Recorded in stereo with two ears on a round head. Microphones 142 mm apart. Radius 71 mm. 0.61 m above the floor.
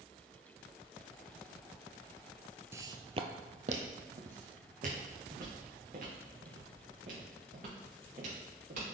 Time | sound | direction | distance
2.7 | footsteps | 15° right (ahead or behind) | 0.6 m